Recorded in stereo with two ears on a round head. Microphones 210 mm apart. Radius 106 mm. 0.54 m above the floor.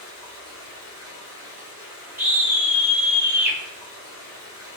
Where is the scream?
10° right (ahead or behind), 1.4 m.